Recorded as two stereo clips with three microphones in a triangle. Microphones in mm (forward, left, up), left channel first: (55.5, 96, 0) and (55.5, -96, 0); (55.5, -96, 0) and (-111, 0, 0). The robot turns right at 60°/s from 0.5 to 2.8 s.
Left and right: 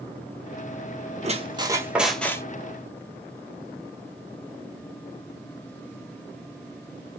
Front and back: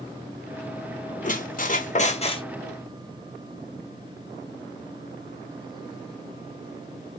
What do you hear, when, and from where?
1.2 s a squeak: 50° right, 0.7 m; by 2.4 s 20° left, 0.7 m